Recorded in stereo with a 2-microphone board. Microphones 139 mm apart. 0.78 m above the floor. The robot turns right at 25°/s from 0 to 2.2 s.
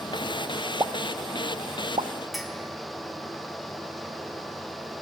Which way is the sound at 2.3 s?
Centre (ahead or behind).